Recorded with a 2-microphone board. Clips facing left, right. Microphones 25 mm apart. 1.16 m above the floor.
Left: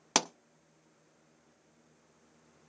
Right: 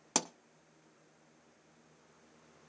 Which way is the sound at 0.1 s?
35° left (ahead or behind).